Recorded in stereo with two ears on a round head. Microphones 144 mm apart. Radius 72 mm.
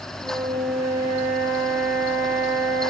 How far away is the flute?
About 9 m.